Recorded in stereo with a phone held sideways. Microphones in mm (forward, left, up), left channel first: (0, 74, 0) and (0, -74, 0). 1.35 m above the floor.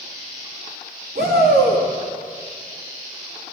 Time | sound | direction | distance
1.1 | a shout | 80° right | 3 m